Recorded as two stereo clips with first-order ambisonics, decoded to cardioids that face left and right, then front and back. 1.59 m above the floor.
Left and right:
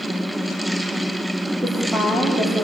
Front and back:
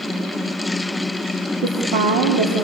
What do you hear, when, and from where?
1.6 s a woman speaking: 175° right, 4.5 m